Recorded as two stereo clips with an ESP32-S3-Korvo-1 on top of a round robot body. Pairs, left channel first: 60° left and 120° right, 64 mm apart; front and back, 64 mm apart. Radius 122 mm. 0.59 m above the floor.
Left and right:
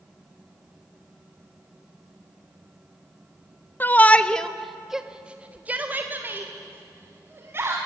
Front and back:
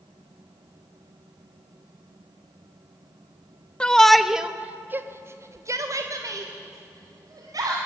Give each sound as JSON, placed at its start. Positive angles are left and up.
{"t": 3.8, "sound": "a shout", "azimuth_deg": 60, "distance_m": 1.1}